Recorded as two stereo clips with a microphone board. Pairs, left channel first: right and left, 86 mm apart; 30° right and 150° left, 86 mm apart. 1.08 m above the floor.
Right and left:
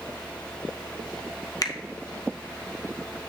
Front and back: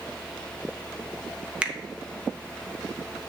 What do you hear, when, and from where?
1.6 s a finger snap: 135° right, 0.8 m